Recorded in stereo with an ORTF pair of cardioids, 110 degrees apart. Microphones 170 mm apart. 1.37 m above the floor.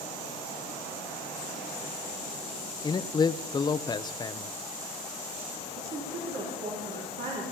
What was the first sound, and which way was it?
A man speaking, 25° left.